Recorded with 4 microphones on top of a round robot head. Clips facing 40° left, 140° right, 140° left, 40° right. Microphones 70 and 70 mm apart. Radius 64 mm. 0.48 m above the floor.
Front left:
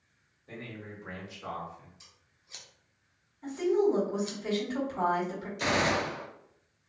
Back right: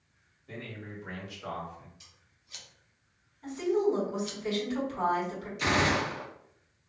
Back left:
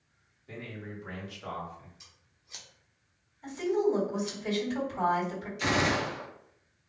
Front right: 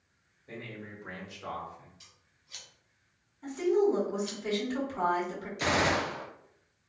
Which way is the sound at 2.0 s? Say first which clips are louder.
Even, back left 1 dB; 85° left.